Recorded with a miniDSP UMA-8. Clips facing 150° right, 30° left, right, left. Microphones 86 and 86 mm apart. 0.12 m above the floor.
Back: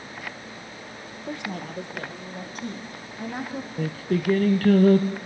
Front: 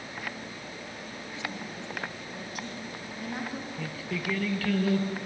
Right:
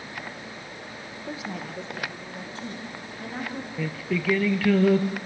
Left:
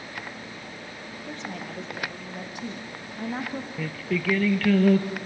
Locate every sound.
1.3 s a woman speaking: 165° right, 3.5 m; by 3.7 s 145° left, 5 m
3.8 s singing: 175° right, 1.3 m